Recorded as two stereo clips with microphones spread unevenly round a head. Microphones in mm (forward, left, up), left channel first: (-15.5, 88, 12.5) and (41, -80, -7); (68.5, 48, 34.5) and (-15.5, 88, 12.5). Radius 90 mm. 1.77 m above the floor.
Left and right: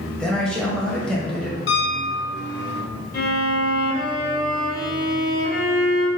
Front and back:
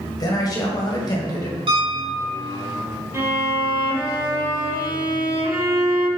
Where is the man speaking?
25° left, 1.8 m.